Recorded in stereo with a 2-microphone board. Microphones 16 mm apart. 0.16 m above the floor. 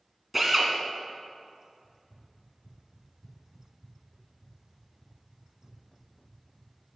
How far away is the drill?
About 1.7 m.